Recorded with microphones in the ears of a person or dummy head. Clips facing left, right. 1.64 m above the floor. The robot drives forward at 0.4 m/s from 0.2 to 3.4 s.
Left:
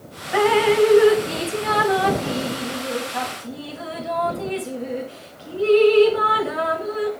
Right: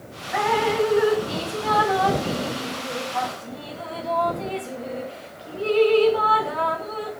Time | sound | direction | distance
0.3 | dripping | 45° left (ahead or behind) | 1.2 m